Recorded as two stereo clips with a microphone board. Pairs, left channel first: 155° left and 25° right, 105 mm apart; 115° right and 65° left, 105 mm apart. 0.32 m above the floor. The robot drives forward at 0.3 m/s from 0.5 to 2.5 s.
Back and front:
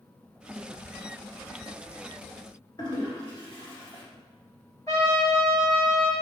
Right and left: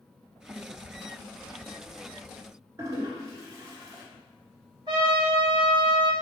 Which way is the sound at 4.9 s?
105° left.